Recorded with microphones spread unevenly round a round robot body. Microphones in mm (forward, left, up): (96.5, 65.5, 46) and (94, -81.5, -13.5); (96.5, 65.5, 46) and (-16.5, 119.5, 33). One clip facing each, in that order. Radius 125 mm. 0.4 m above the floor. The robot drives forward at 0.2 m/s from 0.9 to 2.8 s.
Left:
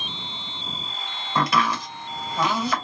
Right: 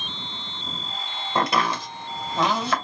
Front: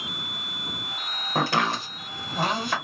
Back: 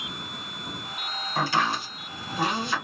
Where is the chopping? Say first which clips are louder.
Even, front 1 dB; 60° right, 2.5 m; by 2.7 s 65° right, 2 m.